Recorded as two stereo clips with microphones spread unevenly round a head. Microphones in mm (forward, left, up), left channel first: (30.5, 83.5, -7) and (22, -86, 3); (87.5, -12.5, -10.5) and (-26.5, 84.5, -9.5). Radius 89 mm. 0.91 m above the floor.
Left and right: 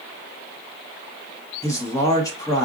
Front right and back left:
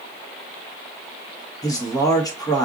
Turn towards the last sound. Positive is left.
turn(degrees=20)